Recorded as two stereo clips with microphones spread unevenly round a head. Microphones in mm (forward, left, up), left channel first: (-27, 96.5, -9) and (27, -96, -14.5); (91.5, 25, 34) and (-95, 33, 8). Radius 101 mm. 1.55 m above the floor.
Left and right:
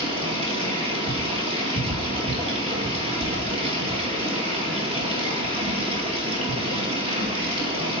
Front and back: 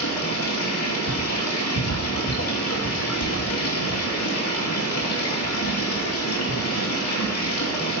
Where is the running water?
10° right, 2.5 m.